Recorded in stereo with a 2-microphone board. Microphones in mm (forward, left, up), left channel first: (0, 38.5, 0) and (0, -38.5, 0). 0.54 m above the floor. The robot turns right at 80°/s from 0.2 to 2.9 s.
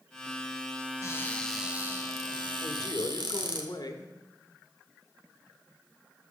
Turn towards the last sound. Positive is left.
turn(degrees=60)  # may be behind; listen again after turning